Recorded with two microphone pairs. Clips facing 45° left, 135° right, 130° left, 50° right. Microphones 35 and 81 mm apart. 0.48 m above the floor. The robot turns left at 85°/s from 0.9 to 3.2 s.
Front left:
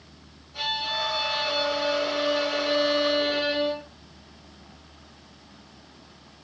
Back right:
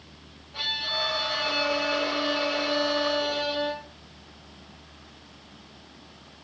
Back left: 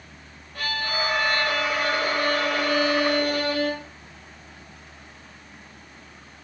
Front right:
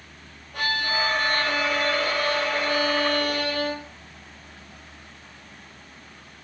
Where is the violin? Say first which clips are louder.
Front left 1 dB, front right 2 dB; 70° right, 5.5 m; by 3.9 s 95° left, 5.5 m.